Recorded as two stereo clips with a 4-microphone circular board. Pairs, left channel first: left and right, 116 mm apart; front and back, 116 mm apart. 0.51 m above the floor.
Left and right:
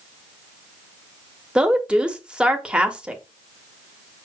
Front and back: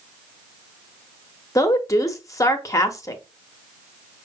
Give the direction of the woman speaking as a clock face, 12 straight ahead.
1 o'clock.